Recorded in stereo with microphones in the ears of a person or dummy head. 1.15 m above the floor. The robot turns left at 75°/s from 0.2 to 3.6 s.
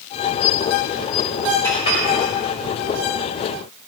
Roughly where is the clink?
Centre.